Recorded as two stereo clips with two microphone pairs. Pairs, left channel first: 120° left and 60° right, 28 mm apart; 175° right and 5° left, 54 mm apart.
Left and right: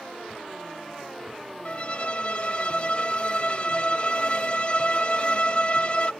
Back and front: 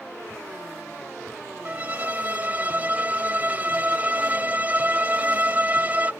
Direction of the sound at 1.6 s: 65° left.